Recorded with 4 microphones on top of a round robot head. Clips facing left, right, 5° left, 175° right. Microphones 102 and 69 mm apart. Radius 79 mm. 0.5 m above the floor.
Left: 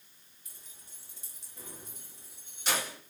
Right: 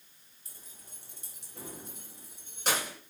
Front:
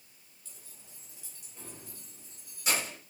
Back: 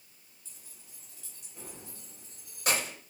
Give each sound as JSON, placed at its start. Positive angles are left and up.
{"t": 0.5, "sound": "keys jangling", "azimuth_deg": -35, "distance_m": 1.1}